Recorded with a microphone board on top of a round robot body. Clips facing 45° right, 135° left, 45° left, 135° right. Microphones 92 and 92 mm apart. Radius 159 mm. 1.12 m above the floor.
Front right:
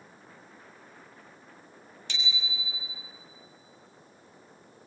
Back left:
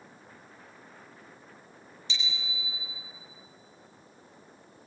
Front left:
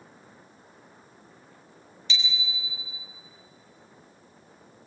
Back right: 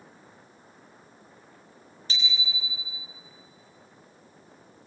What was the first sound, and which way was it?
A bicycle bell, 80° right.